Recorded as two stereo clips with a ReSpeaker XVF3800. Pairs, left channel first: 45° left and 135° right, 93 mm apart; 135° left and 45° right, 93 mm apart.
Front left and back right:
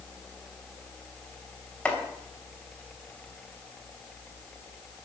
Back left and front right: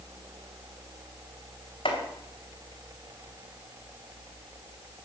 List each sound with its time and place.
1.9 s chopping: 120° left, 3 m